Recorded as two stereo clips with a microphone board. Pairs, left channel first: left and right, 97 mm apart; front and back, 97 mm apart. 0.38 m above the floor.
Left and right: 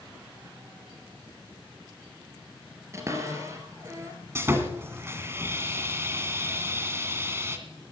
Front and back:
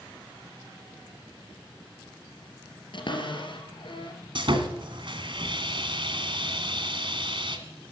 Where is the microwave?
No microwave in this recording.